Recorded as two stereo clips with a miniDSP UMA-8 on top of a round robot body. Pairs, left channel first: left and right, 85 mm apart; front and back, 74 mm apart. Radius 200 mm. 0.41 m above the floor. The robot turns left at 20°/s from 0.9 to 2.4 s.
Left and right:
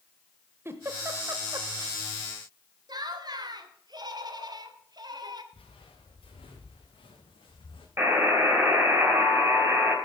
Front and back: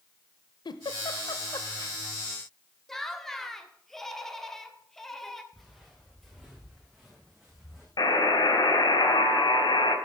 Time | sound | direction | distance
0.7 | a giggle | 25° right | 0.6 m
2.9 | laughter | 85° right | 1.8 m
5.5 | footsteps | 90° left | 5 m
8.0 | a buzzer | 25° right | 3.5 m